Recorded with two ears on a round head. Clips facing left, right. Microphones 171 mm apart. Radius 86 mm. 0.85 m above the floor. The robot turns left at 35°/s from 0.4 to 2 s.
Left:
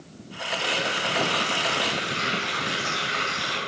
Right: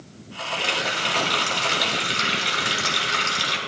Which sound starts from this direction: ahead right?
A running tap, at 0.6 s.